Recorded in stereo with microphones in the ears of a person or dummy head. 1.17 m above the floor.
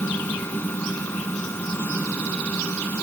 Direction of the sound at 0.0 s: 10° left (ahead or behind).